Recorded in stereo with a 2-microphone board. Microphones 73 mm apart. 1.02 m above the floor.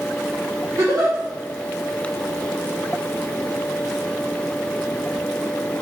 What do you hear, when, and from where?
0.8 s a giggle: 55° right (ahead or behind), 1.7 m